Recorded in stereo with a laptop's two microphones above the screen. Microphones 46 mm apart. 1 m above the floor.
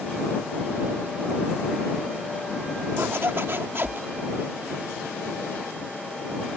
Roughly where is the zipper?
Right.